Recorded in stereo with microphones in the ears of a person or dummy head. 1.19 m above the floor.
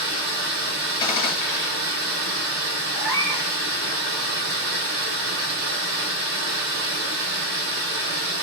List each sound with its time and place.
0.0 s running water: 65° right (ahead or behind), 1.7 m
1.0 s a gunshot: 25° left (ahead or behind), 1.1 m
3.0 s a cat meowing: 10° right (ahead or behind), 1.1 m